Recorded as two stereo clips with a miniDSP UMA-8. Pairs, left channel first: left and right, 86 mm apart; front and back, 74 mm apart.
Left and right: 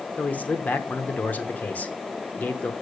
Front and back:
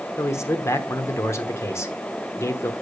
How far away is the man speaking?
About 0.9 m.